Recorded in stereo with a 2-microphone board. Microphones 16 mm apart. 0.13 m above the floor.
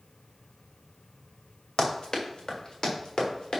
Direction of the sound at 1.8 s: 75° left (ahead or behind).